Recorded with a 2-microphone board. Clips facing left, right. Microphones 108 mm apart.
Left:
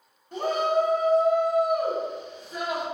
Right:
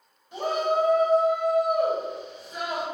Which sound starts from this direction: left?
A shout, at 0.3 s.